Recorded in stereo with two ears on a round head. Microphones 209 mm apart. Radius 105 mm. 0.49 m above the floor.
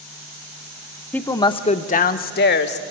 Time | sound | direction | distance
1.1 | a woman speaking | 5° left (ahead or behind) | 0.7 m